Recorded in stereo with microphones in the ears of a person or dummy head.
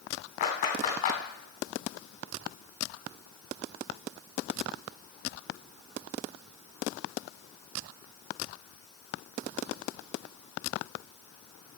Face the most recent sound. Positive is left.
turn(degrees=50)  # may be behind; listen again after turning